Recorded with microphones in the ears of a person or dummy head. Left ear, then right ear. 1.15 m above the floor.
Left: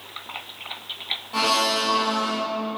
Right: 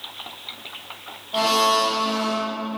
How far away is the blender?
About 0.6 m.